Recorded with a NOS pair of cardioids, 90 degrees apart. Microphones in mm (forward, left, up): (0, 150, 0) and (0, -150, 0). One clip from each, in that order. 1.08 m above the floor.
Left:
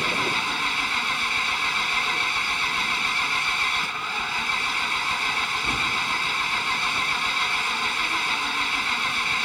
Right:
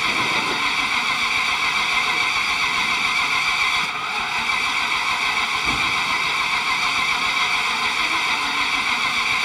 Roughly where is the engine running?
Ahead right.